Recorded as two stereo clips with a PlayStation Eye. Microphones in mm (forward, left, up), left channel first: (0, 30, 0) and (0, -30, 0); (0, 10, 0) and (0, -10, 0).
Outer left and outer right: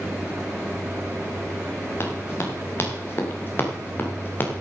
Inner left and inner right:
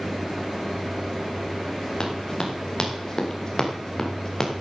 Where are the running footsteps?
40° left (ahead or behind), 5 m; by 4.6 s 35° left (ahead or behind), 4 m.